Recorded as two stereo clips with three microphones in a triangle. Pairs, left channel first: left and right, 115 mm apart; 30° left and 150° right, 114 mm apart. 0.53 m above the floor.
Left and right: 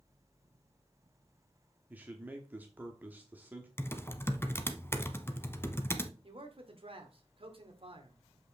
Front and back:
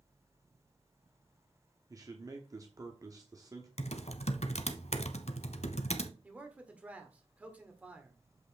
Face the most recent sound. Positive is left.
turn(degrees=-75)